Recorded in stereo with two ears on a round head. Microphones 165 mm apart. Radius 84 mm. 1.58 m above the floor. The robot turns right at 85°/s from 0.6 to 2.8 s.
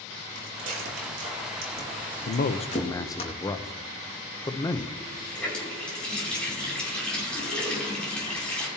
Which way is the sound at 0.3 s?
45° right (ahead or behind).